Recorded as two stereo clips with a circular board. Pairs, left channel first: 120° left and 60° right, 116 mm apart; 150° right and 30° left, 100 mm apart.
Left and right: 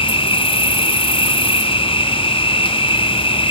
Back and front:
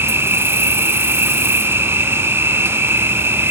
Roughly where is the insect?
Left.